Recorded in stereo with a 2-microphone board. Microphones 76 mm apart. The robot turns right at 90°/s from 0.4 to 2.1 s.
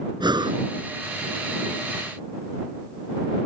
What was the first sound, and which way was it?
Breathing, 70° right (ahead or behind).